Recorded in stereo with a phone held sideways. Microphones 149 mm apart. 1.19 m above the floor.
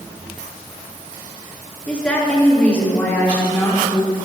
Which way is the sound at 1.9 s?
5° left (ahead or behind).